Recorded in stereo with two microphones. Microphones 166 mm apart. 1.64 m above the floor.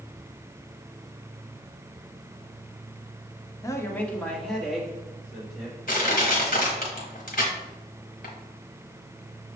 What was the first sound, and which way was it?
A man speaking, 20° left (ahead or behind).